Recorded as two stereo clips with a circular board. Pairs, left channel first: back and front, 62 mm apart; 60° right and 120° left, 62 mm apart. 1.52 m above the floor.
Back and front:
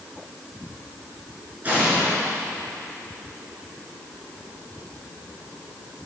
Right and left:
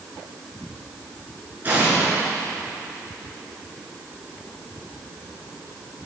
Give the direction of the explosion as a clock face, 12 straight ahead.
10 o'clock.